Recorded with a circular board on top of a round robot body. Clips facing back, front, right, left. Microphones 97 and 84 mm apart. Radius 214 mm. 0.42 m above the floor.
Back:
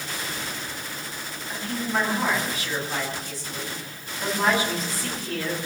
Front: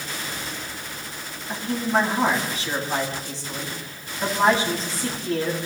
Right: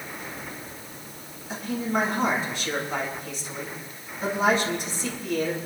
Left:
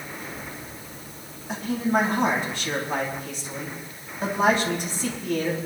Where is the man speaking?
60° left, 5.5 m.